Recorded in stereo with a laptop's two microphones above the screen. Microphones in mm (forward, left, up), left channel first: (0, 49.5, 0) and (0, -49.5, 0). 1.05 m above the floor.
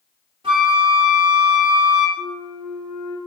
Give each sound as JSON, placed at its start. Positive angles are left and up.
{"t": 0.4, "sound": "a flute", "side_deg": -60, "distance_m": 1.2}
{"t": 2.2, "sound": "a flute", "side_deg": -35, "distance_m": 1.5}